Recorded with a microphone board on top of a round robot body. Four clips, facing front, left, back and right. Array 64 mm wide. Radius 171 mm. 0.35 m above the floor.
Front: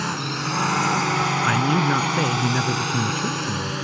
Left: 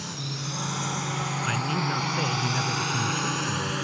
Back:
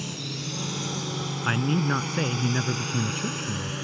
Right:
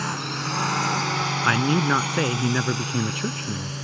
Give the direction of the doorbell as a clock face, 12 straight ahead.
I don't hear a doorbell.